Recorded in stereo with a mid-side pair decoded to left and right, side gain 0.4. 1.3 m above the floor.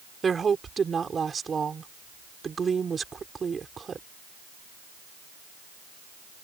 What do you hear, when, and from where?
0.2 s a woman speaking: 40° right